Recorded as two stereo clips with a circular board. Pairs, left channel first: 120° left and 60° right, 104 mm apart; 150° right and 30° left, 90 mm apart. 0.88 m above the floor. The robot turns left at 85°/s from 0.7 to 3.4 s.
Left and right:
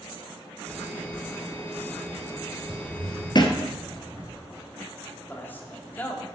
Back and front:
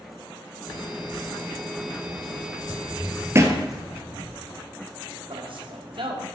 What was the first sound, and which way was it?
Footsteps, 145° right.